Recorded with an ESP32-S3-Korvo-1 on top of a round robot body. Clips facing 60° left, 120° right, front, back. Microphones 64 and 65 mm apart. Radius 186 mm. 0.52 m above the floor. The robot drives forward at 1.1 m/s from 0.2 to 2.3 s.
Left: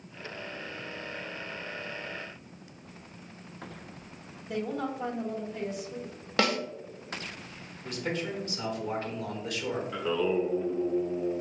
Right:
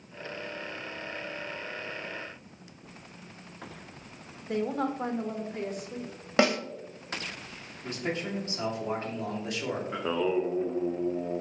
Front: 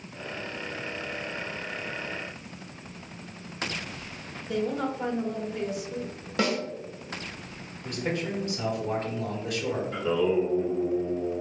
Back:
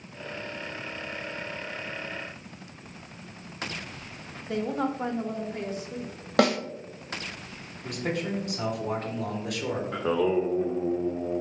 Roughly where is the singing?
Behind.